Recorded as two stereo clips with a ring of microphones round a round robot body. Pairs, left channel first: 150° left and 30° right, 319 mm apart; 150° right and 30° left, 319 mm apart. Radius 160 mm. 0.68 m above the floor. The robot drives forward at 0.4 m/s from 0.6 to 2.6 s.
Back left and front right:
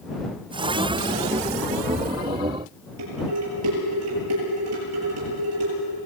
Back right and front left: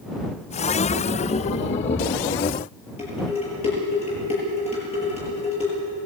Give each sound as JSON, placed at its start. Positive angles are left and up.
{"t": 3.0, "sound": "dishes clattering", "azimuth_deg": -75, "distance_m": 9.0}